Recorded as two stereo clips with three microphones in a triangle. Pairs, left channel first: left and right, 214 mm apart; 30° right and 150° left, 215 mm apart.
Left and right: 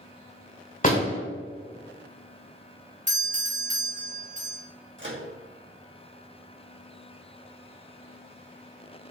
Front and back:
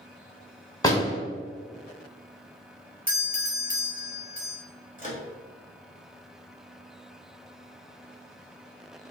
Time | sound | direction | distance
0.8 | a door slam | 40° left | 2.5 m
3.1 | a doorbell | 50° right | 2 m
5.0 | a microwave | 80° right | 2.0 m